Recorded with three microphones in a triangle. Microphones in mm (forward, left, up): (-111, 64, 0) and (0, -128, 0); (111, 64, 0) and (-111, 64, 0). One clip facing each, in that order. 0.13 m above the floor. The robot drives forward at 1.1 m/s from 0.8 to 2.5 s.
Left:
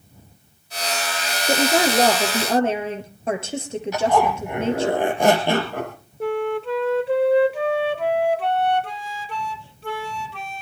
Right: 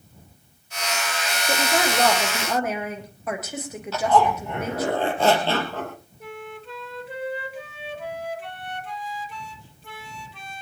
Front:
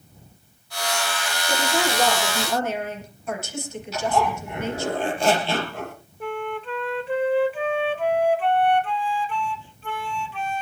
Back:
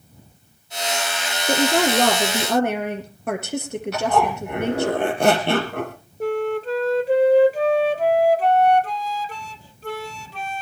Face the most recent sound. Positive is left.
turn(degrees=130)